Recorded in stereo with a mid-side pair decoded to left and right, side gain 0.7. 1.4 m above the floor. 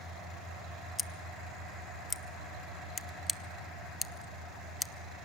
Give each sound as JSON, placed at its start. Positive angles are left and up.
{"t": 1.0, "sound": "scissors", "azimuth_deg": 20, "distance_m": 0.7}